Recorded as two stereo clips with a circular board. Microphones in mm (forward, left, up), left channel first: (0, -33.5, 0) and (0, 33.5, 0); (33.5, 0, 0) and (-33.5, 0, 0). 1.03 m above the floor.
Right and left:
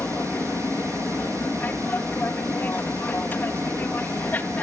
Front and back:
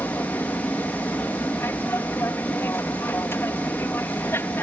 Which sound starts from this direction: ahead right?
An aircraft, at 0.0 s.